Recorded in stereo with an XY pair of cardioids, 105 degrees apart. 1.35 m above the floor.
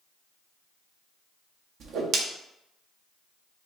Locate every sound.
1.8 s a whoosh: 65° right, 0.9 m